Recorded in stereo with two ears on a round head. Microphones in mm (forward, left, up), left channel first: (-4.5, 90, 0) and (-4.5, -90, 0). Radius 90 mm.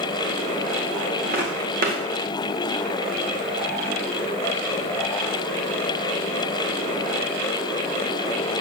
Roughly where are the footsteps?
Right.